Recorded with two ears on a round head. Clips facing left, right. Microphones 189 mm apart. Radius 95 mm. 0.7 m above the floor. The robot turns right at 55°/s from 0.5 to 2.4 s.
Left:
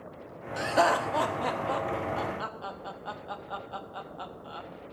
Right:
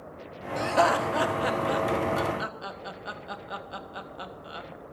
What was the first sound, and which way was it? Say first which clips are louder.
Laughter: right 2 dB; 10° left (ahead or behind).